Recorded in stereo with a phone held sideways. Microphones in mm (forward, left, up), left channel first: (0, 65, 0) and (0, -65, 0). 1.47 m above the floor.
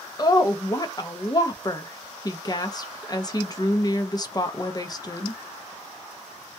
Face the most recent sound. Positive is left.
turn(degrees=30)  # may be behind; listen again after turning